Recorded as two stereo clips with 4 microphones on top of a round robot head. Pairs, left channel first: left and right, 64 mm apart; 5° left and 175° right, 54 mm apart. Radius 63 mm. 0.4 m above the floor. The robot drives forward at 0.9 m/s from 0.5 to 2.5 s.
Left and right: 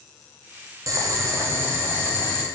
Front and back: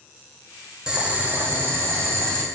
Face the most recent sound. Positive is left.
turn(degrees=-150)